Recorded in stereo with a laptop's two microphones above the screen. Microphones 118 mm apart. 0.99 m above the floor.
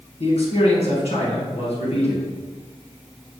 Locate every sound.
0.2 s a man speaking: 60° left (ahead or behind), 1.3 m